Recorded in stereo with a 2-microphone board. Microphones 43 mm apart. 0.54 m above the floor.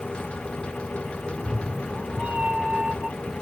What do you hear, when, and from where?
1.3 s a cat meowing: 25° right (ahead or behind), 0.7 m